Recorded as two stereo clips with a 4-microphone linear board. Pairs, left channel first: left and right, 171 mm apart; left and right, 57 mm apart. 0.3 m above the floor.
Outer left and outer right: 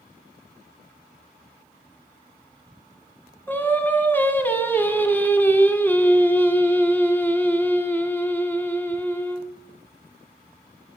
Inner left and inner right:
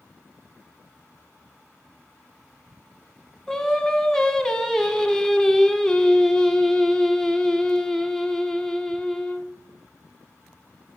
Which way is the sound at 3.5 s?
10° left (ahead or behind).